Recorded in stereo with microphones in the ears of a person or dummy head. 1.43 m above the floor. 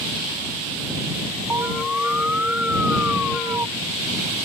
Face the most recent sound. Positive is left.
turn(degrees=-5)  # may be behind; listen again after turning